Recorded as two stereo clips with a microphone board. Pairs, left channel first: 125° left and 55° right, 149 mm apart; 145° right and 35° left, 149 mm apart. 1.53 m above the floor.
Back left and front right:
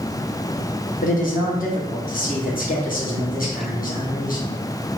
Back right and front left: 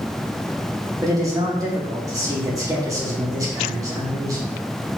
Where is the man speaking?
100° left, 1.4 m.